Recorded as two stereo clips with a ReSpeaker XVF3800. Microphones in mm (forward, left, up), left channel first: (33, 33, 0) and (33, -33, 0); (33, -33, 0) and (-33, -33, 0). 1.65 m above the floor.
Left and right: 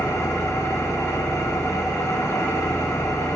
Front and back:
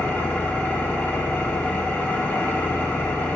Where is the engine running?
55° left, 0.9 m.